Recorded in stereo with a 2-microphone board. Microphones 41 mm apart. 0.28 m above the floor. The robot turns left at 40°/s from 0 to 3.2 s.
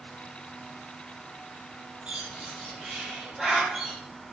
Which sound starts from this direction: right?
A bird, at 2.1 s.